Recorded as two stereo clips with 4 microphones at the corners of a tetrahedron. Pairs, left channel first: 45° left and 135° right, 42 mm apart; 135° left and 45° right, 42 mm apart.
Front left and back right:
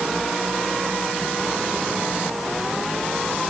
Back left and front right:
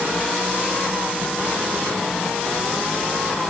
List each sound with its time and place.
Only background noise.